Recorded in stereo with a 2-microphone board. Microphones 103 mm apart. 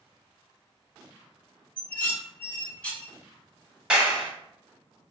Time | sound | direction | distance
1.8 | dishes clattering | 15° left (ahead or behind) | 1.1 m
3.9 | a clap | 10° right (ahead or behind) | 1.1 m